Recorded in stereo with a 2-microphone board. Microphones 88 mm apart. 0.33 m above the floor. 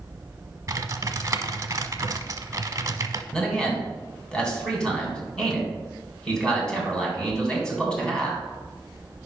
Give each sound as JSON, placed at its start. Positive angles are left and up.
{"t": 0.7, "sound": "typing on a keyboard", "side_deg": -40, "distance_m": 0.5}
{"t": 3.3, "sound": "a man speaking", "side_deg": 10, "distance_m": 2.5}